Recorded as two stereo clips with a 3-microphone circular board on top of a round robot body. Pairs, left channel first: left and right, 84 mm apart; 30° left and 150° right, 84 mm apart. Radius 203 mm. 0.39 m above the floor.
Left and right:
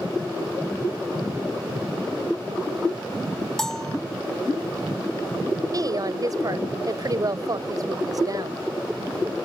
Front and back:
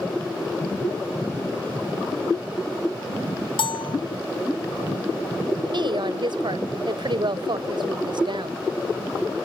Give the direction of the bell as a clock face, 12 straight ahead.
12 o'clock.